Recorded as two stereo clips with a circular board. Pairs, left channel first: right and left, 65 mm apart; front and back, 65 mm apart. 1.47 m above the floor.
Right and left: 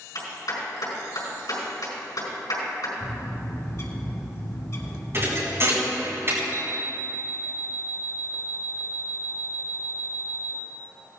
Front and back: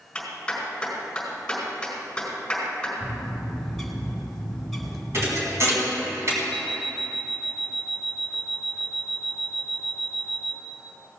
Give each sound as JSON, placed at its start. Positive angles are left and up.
{"t": 0.1, "sound": "a clap", "azimuth_deg": -80, "distance_m": 4.5}
{"t": 3.0, "sound": "a bird", "azimuth_deg": -85, "distance_m": 1.9}
{"t": 5.1, "sound": "a thud", "azimuth_deg": 140, "distance_m": 3.5}
{"t": 6.5, "sound": "an alarm clock", "azimuth_deg": 85, "distance_m": 1.3}